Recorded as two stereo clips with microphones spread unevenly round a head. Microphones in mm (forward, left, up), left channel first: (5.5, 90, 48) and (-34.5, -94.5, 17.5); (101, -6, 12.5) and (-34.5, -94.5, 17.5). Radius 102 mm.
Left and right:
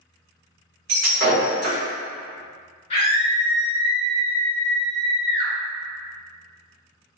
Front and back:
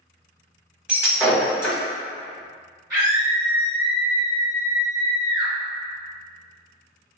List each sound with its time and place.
0.9 s breaking glass: 65° right, 1.2 m
2.9 s a scream: 140° left, 1.3 m